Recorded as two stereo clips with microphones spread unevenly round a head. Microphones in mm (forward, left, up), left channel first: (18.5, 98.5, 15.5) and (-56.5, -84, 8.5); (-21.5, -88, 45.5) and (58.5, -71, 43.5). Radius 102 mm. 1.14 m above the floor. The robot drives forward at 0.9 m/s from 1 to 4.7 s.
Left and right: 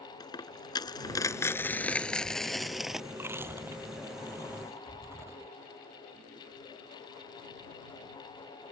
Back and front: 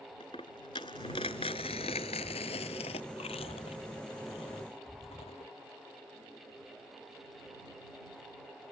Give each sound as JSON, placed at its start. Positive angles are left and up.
{"t": 0.2, "sound": "a dropped coin", "azimuth_deg": 135}
{"t": 3.1, "sound": "chewing", "azimuth_deg": 170}